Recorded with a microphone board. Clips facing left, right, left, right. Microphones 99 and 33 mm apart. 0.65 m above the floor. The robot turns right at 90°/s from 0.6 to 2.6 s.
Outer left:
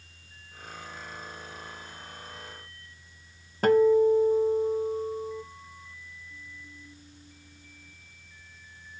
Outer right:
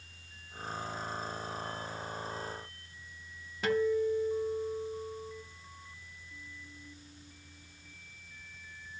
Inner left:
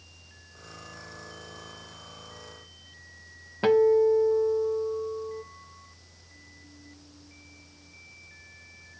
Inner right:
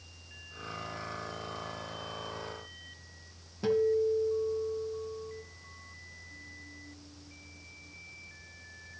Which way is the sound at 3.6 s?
50° left (ahead or behind).